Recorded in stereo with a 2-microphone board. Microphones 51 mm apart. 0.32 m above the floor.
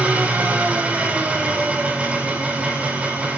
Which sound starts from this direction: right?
An engine running, at 0.0 s.